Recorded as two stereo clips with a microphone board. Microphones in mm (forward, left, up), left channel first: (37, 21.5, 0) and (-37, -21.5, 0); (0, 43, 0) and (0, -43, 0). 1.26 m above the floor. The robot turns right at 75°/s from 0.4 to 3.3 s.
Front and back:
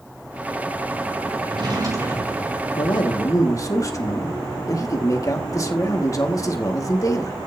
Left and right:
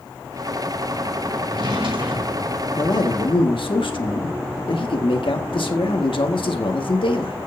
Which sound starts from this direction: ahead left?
A man speaking, at 2.8 s.